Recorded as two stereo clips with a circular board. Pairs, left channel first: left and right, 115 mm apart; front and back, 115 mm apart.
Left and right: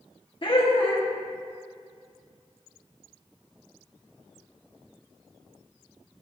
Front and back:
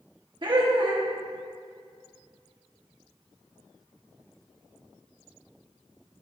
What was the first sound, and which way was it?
Laughter, 135° left.